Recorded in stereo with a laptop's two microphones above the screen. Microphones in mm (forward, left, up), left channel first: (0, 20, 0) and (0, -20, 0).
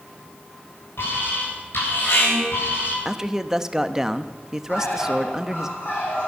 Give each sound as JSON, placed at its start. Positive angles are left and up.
{"t": 1.0, "sound": "an alarm", "side_deg": 80, "distance_m": 8.0}
{"t": 3.0, "sound": "a man speaking", "side_deg": -15, "distance_m": 0.9}
{"t": 4.7, "sound": "a bird", "side_deg": 80, "distance_m": 6.5}